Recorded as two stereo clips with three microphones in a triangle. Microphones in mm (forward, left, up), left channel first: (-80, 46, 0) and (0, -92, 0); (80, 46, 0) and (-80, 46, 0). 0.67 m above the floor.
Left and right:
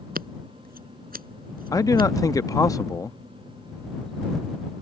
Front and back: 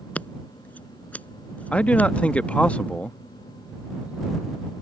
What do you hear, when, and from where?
0.1 s scissors: 80° right
1.7 s a man speaking: 75° left